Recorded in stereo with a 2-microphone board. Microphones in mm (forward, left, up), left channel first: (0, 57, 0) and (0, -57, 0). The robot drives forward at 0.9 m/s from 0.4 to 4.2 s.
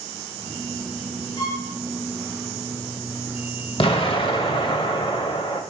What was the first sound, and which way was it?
A violin, 45° left (ahead or behind).